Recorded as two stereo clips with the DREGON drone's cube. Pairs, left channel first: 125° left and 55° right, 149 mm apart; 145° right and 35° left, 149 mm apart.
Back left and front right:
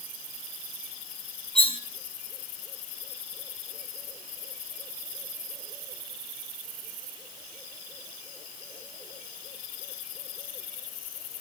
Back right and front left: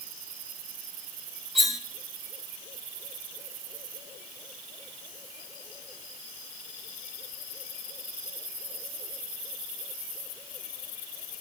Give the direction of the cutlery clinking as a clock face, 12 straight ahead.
8 o'clock.